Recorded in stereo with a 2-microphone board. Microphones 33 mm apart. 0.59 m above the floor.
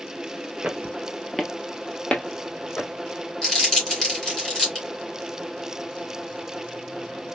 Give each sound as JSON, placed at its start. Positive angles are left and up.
{"t": 0.6, "sound": "footsteps", "side_deg": -30, "distance_m": 0.7}
{"t": 3.4, "sound": "crumpling", "side_deg": 10, "distance_m": 2.5}